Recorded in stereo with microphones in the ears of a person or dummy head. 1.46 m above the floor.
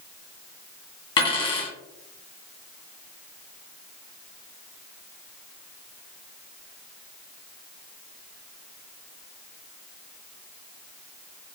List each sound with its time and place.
1.2 s a dropped coin: 25° left (ahead or behind), 1.1 m